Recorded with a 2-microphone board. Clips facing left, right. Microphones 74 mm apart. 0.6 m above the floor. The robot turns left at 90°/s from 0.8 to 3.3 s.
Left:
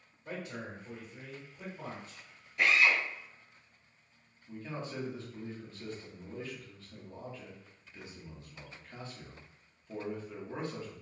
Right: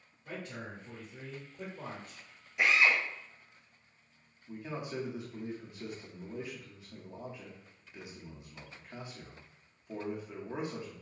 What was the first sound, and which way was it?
A man speaking, 15° left.